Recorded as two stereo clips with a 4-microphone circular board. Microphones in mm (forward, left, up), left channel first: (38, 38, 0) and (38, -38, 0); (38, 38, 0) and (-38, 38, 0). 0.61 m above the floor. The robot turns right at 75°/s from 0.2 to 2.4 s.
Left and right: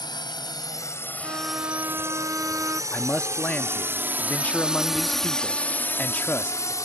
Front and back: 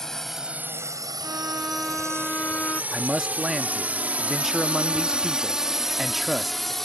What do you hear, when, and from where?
0.0 s a drone: 85° left
1.2 s a violin: 145° right; by 2.8 s 60° right
2.9 s a man speaking: 100° left